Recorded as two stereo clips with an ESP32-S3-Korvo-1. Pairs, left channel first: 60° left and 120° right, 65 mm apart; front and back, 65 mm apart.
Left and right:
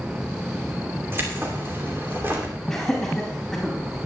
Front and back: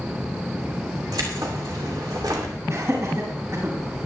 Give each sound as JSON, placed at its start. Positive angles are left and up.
{"t": 1.1, "sound": "keys jangling", "azimuth_deg": -175, "distance_m": 2.5}
{"t": 2.7, "sound": "laughter", "azimuth_deg": 145, "distance_m": 4.0}